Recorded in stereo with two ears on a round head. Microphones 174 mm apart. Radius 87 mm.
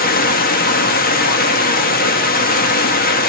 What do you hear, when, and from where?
0.0 s running water: 50° left (ahead or behind), 1.1 m